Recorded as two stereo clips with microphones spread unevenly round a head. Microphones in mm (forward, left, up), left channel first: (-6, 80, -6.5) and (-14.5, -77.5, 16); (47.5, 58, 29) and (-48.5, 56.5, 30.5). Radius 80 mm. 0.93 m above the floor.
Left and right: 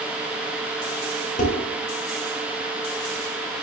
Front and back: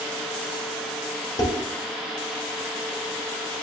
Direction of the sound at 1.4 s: 40° left.